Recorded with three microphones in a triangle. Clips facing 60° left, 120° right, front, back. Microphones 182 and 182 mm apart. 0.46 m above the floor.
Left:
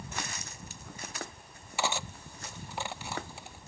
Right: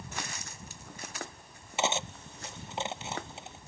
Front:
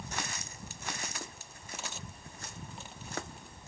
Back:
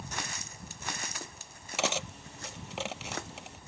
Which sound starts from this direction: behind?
Cutlery clinking, at 1.8 s.